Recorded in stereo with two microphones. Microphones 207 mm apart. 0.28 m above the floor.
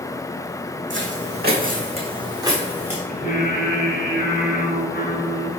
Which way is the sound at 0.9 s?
75° right (ahead or behind).